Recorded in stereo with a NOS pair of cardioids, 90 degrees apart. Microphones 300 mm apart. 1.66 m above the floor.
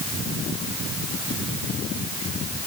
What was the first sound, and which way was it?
Only background noise.